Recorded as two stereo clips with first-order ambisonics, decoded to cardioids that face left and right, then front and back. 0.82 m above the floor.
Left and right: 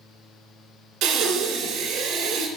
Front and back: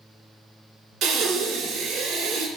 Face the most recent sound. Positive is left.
turn(degrees=-130)